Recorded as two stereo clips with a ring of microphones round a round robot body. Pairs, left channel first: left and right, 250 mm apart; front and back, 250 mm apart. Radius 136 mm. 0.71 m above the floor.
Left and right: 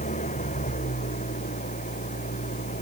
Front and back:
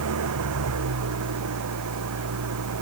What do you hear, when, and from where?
0.0 s an engine running: 155° left